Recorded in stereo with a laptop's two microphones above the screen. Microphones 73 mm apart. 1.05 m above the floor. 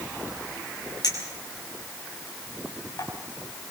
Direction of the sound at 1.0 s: 60° left (ahead or behind).